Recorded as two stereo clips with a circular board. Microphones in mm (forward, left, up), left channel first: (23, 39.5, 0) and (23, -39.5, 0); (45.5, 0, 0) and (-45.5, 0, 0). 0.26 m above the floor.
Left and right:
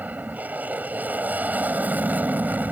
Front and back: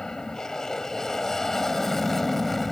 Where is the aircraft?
70° right; by 2.7 s 85° right.